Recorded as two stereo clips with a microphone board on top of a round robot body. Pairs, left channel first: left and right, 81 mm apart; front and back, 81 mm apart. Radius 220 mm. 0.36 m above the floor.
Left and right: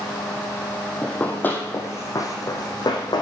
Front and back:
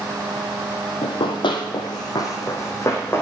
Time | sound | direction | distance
1.0 | running footsteps | 10° left | 1.4 m